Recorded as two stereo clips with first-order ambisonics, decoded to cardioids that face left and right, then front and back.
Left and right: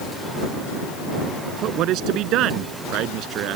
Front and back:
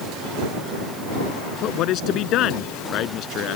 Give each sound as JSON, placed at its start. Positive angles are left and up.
{"t": 1.6, "sound": "a man speaking", "azimuth_deg": -45}